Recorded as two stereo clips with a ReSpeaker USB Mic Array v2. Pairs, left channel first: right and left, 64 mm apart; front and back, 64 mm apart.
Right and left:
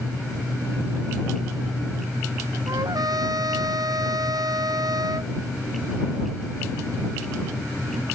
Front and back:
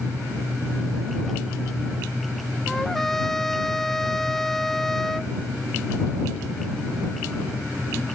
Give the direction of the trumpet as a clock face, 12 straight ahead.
9 o'clock.